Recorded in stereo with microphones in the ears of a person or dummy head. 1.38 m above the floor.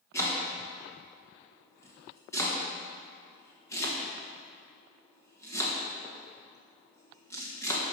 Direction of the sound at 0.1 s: 20° left (ahead or behind).